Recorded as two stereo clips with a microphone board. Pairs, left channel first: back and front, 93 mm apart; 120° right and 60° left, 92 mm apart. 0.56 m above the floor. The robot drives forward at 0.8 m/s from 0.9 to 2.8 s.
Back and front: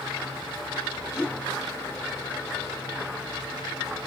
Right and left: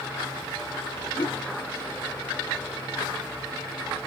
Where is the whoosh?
100° right, 0.8 m; by 1.4 s 115° right, 0.9 m.